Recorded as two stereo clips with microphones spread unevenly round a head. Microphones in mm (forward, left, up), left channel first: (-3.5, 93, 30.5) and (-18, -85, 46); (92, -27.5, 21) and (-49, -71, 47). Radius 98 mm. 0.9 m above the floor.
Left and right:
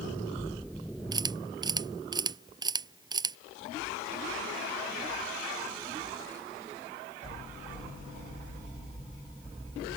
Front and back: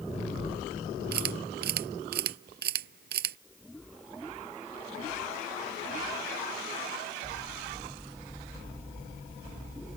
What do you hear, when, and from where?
1.1 s a camera shutter: 160° right